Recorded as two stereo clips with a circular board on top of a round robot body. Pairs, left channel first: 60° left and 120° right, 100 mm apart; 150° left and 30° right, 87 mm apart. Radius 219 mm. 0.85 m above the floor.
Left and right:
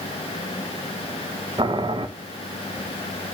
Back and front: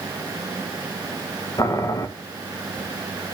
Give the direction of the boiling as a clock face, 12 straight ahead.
5 o'clock.